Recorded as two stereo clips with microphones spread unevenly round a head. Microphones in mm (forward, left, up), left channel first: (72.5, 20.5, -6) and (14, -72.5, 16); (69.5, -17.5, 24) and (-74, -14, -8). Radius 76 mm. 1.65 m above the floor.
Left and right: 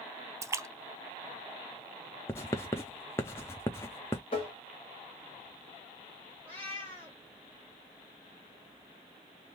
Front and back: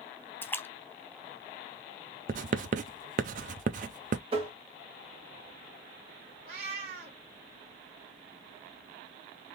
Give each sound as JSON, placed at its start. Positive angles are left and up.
{"t": 0.4, "sound": "a splash", "azimuth_deg": -70, "distance_m": 0.6}
{"t": 2.3, "sound": "writing", "azimuth_deg": 135, "distance_m": 0.5}
{"t": 4.3, "sound": "tapping", "azimuth_deg": 120, "distance_m": 1.4}
{"t": 6.5, "sound": "a cat meowing", "azimuth_deg": 145, "distance_m": 2.0}